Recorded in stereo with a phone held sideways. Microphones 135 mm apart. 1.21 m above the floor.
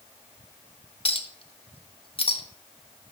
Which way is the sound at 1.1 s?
45° left (ahead or behind).